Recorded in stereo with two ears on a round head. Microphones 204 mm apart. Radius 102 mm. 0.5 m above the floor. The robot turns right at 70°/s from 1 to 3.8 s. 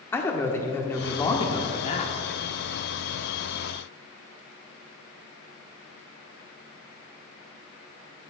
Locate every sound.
0.1 s a man speaking: 10° left (ahead or behind), 0.9 m; by 2.1 s 30° left (ahead or behind), 0.9 m